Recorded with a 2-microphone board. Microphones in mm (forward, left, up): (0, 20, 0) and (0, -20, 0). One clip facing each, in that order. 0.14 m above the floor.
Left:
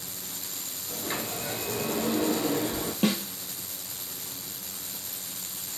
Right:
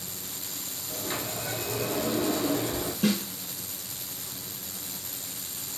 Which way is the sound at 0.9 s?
15° left (ahead or behind).